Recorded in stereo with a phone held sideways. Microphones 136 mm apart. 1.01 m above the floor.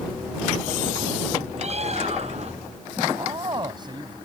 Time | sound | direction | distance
1.6 | a bird | 50° right (ahead or behind) | ?
3.1 | a man speaking | 30° right (ahead or behind) | ?